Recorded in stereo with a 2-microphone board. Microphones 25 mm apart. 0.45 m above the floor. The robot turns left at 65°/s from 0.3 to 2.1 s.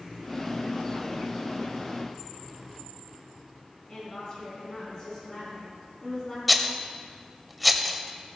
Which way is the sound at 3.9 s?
30° left (ahead or behind).